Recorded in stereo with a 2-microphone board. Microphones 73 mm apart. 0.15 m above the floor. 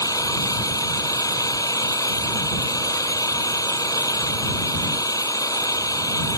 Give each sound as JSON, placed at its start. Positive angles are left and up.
{"t": 0.0, "sound": "an engine running", "side_deg": 55}